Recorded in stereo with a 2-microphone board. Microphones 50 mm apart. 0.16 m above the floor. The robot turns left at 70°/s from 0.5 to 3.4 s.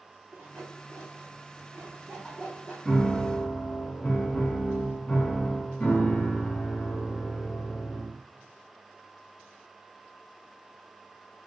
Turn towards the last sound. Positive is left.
turn(degrees=135)